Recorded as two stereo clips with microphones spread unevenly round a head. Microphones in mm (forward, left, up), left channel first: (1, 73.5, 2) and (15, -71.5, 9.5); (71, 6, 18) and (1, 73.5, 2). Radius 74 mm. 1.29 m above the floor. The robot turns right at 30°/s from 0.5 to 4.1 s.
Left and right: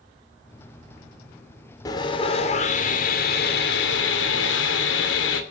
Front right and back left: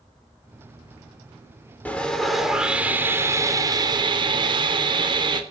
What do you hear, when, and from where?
1.9 s sawing: 30° left, 2.5 m; by 5.4 s 95° left, 2.5 m